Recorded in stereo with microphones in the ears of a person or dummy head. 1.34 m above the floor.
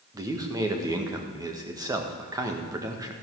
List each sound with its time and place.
0.1 s a man speaking: 15° right (ahead or behind), 1.6 m